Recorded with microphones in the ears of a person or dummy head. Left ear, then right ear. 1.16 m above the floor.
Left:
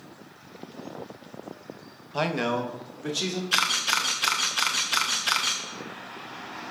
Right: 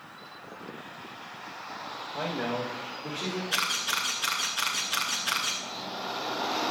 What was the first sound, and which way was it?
A man speaking, 55° left (ahead or behind).